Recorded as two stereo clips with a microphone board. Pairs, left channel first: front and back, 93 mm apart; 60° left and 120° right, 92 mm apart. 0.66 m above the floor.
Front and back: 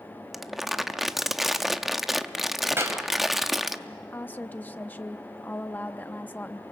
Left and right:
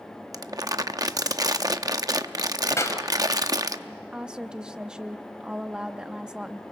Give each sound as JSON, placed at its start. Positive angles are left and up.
{"t": 0.3, "sound": "crumpling", "azimuth_deg": -95, "distance_m": 0.7}
{"t": 2.8, "sound": "a clap", "azimuth_deg": 120, "distance_m": 2.5}
{"t": 4.1, "sound": "a woman speaking", "azimuth_deg": -50, "distance_m": 0.5}